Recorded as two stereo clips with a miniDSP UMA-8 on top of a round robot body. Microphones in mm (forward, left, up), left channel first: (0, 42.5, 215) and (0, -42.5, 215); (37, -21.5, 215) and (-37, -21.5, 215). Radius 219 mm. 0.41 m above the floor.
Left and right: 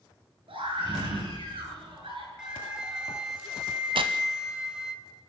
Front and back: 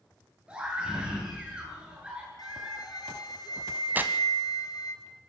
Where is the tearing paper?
115° right, 0.6 m.